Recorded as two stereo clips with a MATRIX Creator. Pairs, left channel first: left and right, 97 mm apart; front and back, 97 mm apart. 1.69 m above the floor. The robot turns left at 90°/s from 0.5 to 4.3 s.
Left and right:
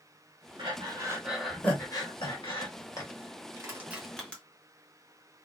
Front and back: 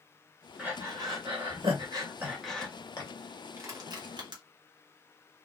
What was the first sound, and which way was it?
Breathing, 105° right.